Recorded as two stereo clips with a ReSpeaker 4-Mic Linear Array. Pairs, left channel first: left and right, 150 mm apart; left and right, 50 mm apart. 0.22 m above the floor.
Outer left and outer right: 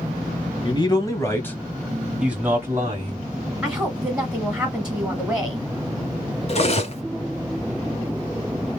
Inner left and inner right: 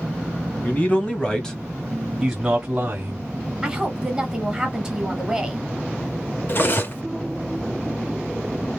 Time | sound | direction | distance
0.6 | a man speaking | 30° left (ahead or behind) | 1.4 m
3.6 | a woman speaking | 5° right (ahead or behind) | 1.5 m
6.5 | cutlery clinking | 45° left (ahead or behind) | 1.1 m